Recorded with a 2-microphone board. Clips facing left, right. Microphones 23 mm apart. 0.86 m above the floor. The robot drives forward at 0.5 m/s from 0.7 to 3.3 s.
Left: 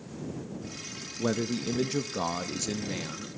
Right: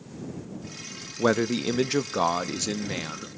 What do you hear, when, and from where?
1.2 s a man speaking: 50° right (ahead or behind), 0.6 m; by 3.3 s 25° right (ahead or behind), 1.2 m